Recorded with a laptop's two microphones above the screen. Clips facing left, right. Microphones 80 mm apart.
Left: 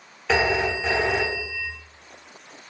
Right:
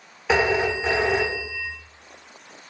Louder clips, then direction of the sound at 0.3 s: Right 1 dB; 10° right (ahead or behind).